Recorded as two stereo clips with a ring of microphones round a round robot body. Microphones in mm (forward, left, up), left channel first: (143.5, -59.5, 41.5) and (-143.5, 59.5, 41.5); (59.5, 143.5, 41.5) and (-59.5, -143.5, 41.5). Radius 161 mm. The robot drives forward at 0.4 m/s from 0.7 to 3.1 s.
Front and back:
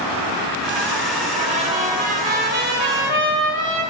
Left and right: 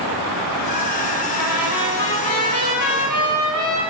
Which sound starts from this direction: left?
A trumpet, at 1.4 s.